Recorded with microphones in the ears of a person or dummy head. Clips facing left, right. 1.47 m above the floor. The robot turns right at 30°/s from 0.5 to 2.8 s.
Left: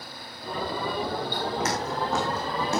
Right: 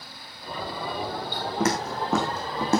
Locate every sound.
1.6 s footsteps: 50° right (ahead or behind), 3 m